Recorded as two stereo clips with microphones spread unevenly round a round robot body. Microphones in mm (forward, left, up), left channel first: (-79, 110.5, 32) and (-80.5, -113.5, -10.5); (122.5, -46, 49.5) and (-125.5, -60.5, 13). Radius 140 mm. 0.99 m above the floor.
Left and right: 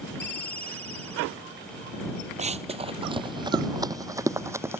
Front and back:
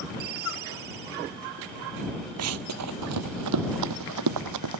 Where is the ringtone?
170° left.